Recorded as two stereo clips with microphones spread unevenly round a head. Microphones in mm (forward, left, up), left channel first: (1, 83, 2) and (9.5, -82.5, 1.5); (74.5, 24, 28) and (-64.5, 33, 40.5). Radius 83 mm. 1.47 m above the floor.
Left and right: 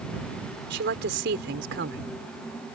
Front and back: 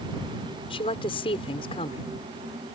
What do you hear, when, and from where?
0.7 s a woman speaking: 65° right